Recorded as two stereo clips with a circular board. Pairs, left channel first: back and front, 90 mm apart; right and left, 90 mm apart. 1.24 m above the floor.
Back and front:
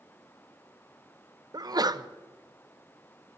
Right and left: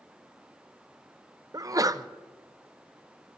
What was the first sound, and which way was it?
A sneeze, 40° left.